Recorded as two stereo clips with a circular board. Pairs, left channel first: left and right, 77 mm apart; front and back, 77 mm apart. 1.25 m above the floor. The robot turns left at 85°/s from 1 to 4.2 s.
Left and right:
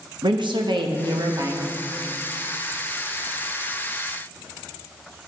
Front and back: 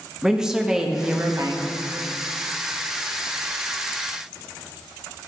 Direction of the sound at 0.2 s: 100° right.